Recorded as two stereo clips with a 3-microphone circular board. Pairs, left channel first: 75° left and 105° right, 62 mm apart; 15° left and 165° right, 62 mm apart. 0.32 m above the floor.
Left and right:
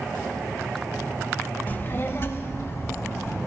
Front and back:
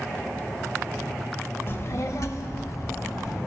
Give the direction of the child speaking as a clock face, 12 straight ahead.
11 o'clock.